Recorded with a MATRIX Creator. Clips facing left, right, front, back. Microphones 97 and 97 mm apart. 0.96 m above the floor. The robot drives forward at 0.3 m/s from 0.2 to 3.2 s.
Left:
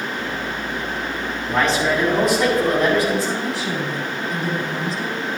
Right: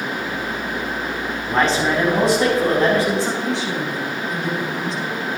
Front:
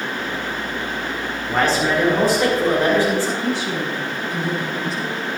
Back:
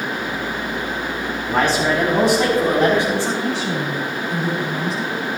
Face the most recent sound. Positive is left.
turn(degrees=175)